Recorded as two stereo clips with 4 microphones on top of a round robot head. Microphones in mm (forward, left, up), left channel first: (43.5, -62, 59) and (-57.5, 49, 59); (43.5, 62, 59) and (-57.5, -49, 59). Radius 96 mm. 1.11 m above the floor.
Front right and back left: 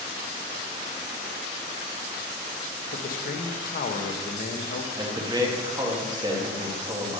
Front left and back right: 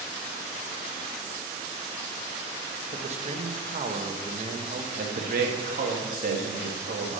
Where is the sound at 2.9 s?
85° right, 0.9 m.